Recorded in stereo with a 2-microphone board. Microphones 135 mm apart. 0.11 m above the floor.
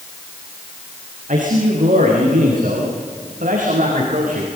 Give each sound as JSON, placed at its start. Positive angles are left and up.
{"t": 1.3, "sound": "a man speaking", "side_deg": -75, "distance_m": 6.5}